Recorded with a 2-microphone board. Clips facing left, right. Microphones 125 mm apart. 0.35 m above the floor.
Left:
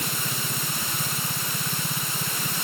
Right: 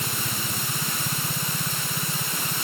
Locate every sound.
Only background noise.